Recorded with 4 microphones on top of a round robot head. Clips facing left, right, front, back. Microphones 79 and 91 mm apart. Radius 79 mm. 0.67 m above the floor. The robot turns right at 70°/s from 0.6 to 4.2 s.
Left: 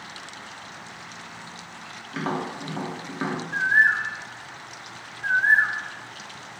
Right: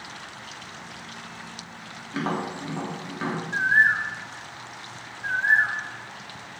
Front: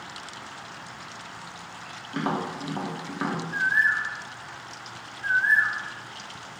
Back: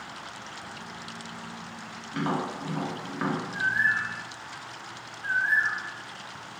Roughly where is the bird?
Ahead.